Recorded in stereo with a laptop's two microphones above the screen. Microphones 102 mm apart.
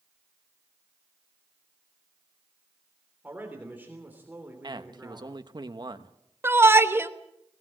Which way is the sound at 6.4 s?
25° right (ahead or behind).